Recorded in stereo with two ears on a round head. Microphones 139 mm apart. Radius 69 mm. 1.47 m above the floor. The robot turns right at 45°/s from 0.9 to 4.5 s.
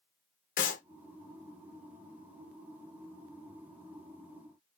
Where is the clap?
55° left (ahead or behind), 0.9 m.